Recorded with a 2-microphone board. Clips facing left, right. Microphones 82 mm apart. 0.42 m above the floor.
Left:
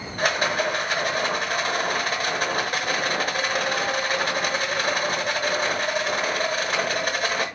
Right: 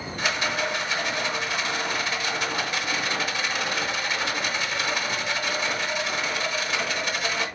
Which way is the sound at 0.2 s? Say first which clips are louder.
Left 4 dB; 50° left (ahead or behind).